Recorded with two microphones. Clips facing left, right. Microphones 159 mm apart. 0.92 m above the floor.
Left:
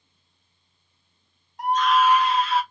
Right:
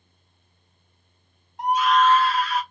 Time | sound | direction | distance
1.6 | a scream | 25° right (ahead or behind) | 0.5 m